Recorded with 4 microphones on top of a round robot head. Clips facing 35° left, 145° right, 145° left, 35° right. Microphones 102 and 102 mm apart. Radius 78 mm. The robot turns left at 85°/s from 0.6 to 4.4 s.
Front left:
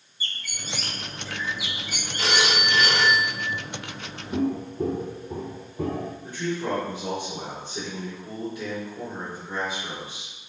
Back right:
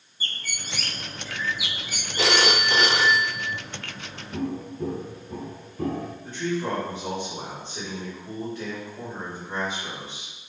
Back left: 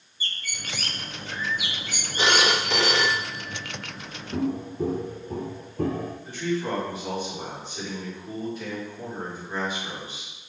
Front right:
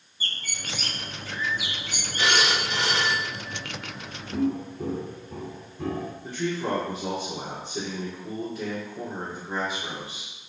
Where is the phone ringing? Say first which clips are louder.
Back right 2 dB, back left 2 dB; 150° right, 0.6 m; by 3.5 s 100° left, 0.6 m.